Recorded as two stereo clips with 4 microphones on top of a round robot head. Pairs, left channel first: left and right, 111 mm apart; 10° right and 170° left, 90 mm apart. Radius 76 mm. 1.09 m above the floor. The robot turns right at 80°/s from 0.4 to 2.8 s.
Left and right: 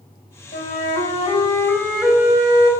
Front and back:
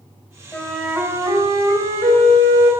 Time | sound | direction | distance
0.5 | a flute | 60° left | 4.5 m